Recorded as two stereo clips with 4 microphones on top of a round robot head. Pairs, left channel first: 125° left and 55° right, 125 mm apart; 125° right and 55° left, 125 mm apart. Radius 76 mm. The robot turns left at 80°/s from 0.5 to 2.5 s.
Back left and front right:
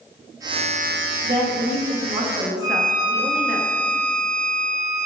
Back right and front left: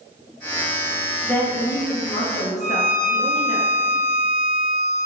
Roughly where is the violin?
Left.